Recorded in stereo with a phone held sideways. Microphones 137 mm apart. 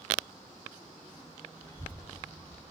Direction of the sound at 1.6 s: 25° left (ahead or behind).